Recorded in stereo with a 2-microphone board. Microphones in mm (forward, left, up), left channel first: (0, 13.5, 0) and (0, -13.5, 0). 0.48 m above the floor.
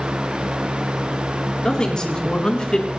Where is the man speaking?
25° left (ahead or behind), 5.5 m; by 2.9 s 30° left (ahead or behind), 4.5 m.